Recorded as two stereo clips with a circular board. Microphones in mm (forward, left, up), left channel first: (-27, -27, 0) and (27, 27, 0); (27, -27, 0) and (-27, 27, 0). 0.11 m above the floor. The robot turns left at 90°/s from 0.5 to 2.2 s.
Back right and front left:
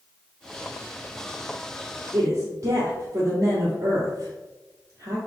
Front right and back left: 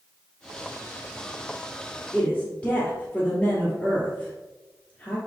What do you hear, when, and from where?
2.1 s a woman speaking: 30° left, 2.0 m; by 5.2 s 25° left, 2.0 m